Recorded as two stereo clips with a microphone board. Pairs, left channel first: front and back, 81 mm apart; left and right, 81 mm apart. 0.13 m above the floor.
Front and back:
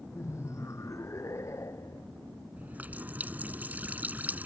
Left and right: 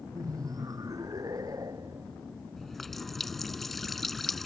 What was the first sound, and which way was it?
Laughter, 50° right.